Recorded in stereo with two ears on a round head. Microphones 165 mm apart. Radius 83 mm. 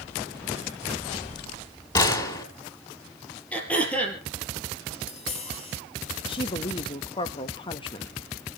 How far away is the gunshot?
About 2.5 m.